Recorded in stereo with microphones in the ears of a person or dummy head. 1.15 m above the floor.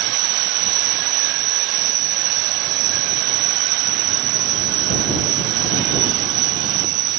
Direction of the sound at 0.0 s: 45° right (ahead or behind).